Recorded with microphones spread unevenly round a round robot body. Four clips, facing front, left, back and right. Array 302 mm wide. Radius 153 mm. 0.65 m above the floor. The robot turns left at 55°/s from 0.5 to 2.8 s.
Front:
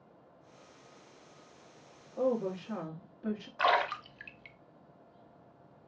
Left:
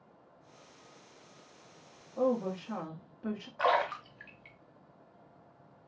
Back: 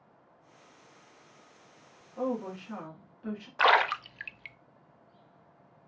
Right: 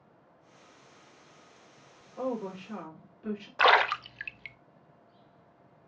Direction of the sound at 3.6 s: 120° right.